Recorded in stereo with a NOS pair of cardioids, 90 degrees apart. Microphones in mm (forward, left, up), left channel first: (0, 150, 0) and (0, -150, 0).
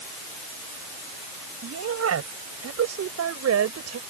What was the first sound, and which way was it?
A woman speaking, 55° right.